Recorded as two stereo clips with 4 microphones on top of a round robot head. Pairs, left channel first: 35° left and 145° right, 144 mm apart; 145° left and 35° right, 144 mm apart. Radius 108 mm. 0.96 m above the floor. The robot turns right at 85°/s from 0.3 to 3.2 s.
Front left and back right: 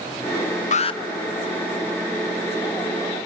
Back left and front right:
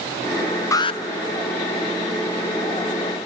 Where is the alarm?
75° left, 0.7 m; by 1.0 s 100° left, 0.7 m.